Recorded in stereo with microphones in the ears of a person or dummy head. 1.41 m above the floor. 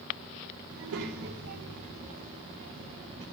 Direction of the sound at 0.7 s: 65° right (ahead or behind).